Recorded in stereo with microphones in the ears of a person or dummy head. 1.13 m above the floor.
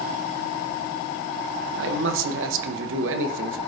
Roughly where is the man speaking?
Right.